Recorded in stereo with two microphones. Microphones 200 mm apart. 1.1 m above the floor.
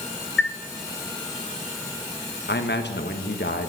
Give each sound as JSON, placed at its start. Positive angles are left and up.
{"t": 0.4, "sound": "a chime", "side_deg": 80, "distance_m": 0.8}
{"t": 2.5, "sound": "a man speaking", "side_deg": 60, "distance_m": 1.4}